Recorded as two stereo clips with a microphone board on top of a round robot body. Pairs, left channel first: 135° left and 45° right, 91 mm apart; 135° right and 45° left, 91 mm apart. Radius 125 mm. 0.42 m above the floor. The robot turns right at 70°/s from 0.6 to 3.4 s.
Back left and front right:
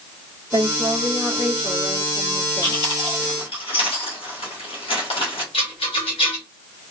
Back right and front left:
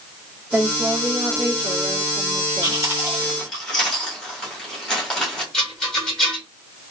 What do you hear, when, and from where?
0.5 s a woman speaking: 40° right, 2 m; by 2.8 s 115° left, 2 m
2.6 s chewing: 85° left, 2.5 m; by 5.4 s 140° left, 2.5 m
5.5 s a rattle: 140° left, 2.5 m